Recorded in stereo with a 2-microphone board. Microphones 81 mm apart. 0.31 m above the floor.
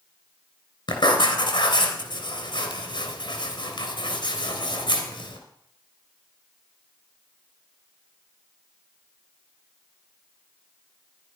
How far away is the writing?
About 3 m.